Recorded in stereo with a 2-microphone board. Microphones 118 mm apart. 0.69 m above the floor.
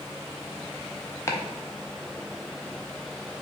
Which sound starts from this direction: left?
Chopping, at 1.3 s.